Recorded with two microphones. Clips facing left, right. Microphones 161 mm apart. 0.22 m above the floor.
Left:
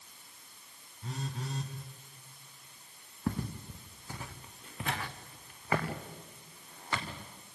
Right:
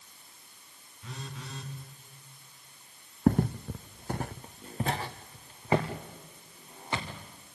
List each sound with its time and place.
1.0 s a phone buzzing: 40° left (ahead or behind), 2.5 m
3.3 s footsteps: 50° right (ahead or behind), 0.7 m; by 7.2 s 20° right (ahead or behind), 3.5 m